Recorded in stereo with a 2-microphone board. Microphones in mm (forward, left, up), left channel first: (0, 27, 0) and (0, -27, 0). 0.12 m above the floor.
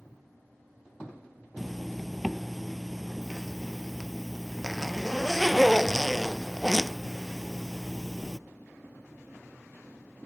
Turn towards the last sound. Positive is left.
turn(degrees=0)  # may be behind; listen again after turning